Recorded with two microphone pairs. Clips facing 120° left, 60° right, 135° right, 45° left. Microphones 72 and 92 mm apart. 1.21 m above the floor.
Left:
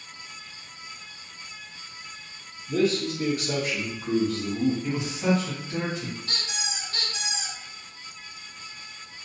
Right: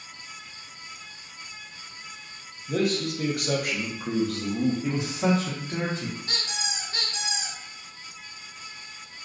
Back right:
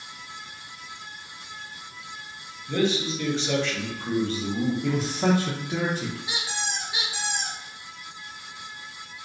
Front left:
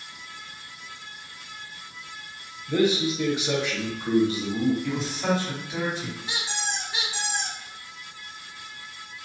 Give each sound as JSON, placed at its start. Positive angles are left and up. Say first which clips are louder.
{"t": 2.7, "sound": "a man speaking", "louder": "left 2 dB, front left 2 dB", "azimuth_deg": -30, "distance_m": 0.7}
{"t": 4.8, "sound": "a man speaking", "louder": "right 1 dB, back right 3 dB", "azimuth_deg": -110, "distance_m": 0.7}
{"t": 6.3, "sound": "a squeak", "louder": "right 1 dB, even", "azimuth_deg": -70, "distance_m": 0.8}